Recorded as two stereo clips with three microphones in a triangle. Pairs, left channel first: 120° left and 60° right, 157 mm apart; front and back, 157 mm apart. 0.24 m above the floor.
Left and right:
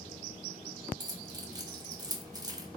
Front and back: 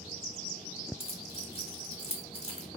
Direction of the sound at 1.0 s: 10° right.